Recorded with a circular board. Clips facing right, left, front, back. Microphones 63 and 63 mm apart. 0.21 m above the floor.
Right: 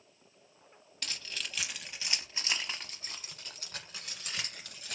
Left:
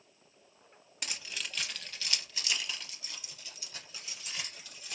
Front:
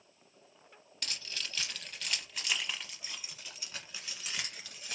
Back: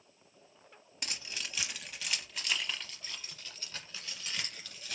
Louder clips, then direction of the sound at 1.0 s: Even, even; 140° left.